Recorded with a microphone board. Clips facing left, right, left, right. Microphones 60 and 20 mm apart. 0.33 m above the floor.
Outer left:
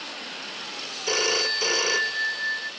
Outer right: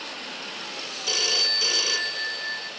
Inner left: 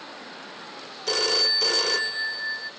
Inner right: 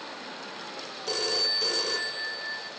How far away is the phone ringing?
About 0.5 m.